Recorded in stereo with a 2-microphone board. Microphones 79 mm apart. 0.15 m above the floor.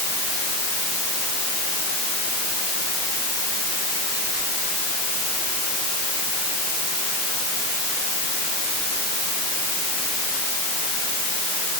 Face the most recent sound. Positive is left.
No sound to turn to.